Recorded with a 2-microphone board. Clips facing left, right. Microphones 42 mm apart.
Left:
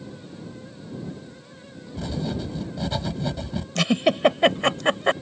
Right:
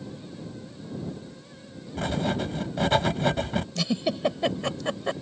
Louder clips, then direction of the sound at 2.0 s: Right 2 dB; 60° right (ahead or behind).